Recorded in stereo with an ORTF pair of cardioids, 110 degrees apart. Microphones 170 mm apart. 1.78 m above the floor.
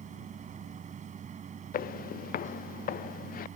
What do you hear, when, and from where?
0.0 s a machine running: 45° right
1.7 s footsteps: 60° left